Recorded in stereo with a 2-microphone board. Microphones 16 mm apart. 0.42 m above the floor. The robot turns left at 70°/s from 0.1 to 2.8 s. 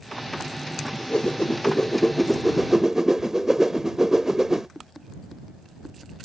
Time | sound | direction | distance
0.9 | a whoosh | 95° left | ?